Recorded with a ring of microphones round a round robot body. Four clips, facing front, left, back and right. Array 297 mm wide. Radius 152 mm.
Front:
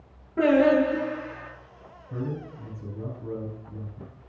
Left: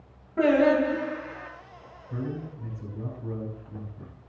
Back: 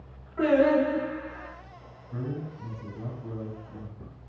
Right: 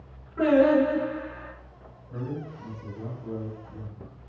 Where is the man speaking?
30° left, 9.5 m.